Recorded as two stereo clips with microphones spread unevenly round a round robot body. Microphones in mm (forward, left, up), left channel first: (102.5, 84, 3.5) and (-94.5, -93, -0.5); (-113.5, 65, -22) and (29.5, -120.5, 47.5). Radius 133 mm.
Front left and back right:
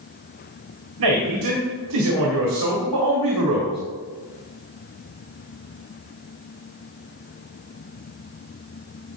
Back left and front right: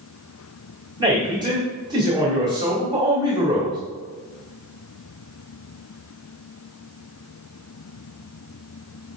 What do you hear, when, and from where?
1.0 s a man speaking: 130° right, 2 m